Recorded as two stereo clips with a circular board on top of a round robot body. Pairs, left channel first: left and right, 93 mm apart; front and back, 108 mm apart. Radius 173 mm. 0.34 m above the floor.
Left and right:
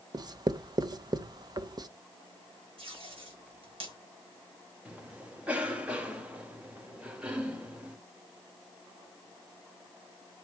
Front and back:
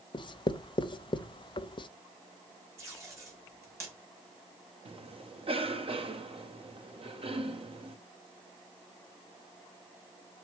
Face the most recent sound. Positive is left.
turn(degrees=-165)